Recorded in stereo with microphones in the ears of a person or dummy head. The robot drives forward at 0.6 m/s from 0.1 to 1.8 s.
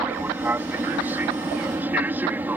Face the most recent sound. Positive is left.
turn(degrees=-10)  # may be behind; listen again after turning